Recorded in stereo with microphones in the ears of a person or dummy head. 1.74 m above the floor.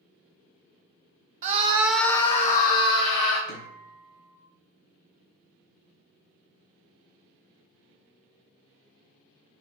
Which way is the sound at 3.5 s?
60° left (ahead or behind).